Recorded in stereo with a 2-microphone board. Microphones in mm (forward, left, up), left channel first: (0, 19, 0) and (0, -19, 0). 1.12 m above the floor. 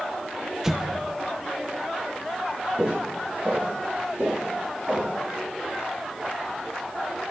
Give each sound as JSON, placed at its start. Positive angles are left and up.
{"t": 0.6, "sound": "an explosion", "side_deg": -10, "distance_m": 0.6}
{"t": 2.8, "sound": "footsteps", "side_deg": -30, "distance_m": 4.5}